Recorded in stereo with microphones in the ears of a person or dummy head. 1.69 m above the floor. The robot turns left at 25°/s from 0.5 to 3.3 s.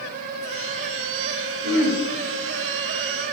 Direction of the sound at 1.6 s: 65° right (ahead or behind).